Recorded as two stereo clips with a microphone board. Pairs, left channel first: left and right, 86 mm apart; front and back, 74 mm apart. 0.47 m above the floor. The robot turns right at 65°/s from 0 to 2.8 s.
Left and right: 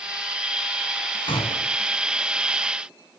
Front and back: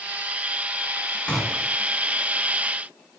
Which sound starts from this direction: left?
A gunshot, at 1.3 s.